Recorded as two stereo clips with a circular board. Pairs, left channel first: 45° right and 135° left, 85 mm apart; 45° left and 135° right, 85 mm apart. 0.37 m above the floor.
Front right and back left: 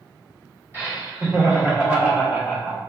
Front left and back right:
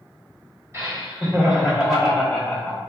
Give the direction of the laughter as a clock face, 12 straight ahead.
6 o'clock.